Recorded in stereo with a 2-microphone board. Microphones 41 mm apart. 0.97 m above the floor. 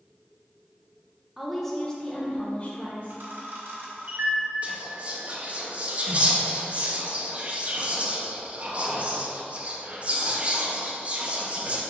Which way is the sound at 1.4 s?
5° right (ahead or behind).